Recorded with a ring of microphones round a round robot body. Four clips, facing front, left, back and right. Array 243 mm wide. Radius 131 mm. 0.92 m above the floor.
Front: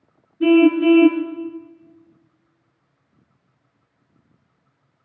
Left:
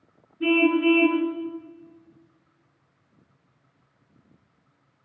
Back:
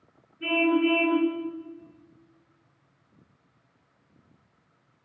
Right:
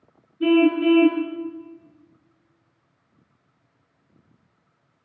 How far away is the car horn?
About 6.5 m.